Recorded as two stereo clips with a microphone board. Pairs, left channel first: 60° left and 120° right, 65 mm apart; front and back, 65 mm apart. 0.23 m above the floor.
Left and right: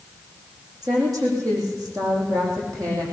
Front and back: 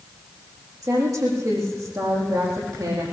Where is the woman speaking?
145° right, 9.5 m; by 3.0 s 150° right, 10 m.